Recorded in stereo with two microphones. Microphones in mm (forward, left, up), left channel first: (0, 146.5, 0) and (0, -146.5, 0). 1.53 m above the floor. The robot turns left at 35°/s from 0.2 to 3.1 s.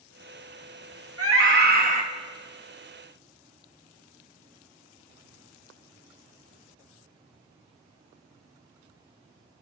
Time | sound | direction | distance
1.2 | a scream | 50° right (ahead or behind) | 1.0 m